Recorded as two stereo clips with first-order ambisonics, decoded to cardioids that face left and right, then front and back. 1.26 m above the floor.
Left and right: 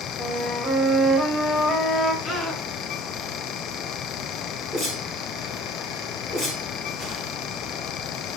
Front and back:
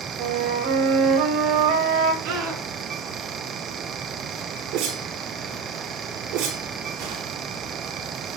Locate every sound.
0.2 s a flute: 170° left, 7.5 m
2.2 s a scream: straight behind, 9.5 m
4.7 s a whoosh: 160° left, 4.5 m